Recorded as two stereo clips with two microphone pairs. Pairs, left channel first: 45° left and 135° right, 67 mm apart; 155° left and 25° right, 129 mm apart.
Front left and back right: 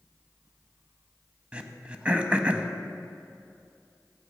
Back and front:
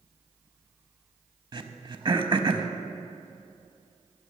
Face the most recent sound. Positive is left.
turn(degrees=-70)